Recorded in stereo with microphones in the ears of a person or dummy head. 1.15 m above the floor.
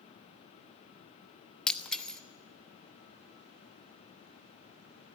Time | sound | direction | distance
1.7 | breaking glass | centre (ahead or behind) | 1.0 m